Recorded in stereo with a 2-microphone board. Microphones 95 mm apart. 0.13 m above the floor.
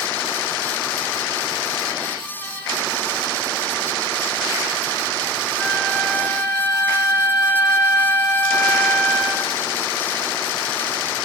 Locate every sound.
5.6 s a flute: 5° right (ahead or behind), 5 m